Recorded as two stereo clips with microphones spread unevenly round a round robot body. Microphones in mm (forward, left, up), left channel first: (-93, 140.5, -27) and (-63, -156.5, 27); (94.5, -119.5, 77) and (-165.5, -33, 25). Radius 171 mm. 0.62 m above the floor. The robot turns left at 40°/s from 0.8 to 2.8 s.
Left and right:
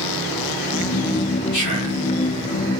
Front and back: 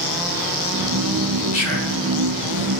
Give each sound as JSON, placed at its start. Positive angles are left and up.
{"t": 1.5, "sound": "whispering", "azimuth_deg": 85, "distance_m": 2.0}